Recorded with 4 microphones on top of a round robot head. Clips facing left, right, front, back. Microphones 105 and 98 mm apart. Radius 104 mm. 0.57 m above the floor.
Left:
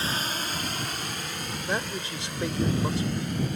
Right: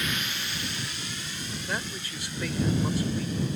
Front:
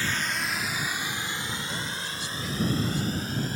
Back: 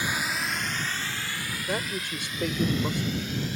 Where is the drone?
115° left; by 3.5 s 50° left.